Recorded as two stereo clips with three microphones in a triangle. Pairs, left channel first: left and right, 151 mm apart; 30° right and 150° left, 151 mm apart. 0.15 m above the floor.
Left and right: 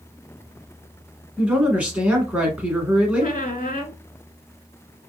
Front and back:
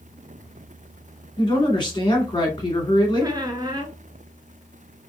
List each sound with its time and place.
1.4 s a man speaking: 15° right, 1.2 m
3.2 s a squeak: 95° left, 0.5 m